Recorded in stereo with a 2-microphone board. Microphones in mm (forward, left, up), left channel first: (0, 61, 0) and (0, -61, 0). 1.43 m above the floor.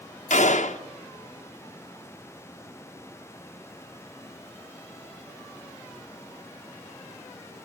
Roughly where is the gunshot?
Left.